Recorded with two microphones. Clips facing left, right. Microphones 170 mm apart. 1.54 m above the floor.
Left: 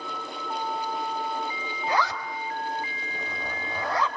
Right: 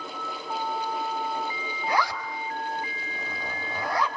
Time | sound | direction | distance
1.9 | a zipper | 20° left (ahead or behind) | 4 m